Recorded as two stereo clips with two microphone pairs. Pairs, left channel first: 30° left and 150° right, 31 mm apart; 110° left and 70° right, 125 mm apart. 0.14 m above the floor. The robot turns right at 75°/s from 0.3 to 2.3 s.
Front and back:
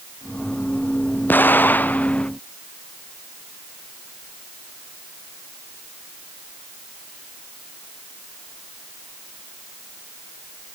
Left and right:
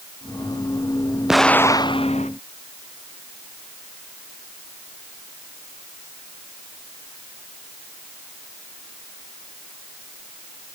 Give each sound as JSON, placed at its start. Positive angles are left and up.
{"t": 1.3, "sound": "an explosion", "azimuth_deg": 10}